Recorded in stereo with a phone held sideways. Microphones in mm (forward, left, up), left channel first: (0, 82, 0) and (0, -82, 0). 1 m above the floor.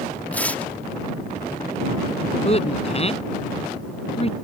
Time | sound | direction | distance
0.3 | tearing paper | 10° left (ahead or behind) | ?
2.5 | a woman speaking | 40° left (ahead or behind) | ?